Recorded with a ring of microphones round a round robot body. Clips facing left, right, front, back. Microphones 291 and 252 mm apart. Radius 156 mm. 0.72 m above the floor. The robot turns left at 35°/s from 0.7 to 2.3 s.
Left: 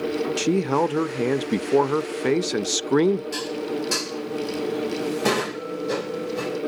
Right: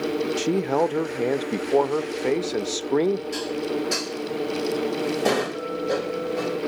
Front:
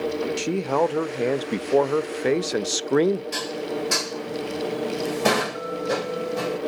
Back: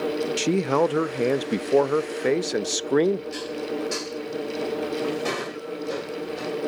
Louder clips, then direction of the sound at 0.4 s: Left 2 dB, back 3 dB; 140° left.